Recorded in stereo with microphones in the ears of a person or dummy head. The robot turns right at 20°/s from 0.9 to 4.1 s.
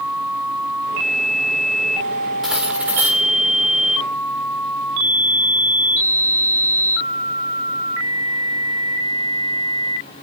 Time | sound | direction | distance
2.4 | cutlery clinking | centre (ahead or behind) | 1.6 m